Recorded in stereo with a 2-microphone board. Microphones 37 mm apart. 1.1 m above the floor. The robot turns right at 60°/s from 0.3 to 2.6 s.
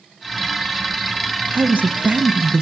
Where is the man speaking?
90° right, 0.6 m; by 2.6 s 25° right, 0.6 m.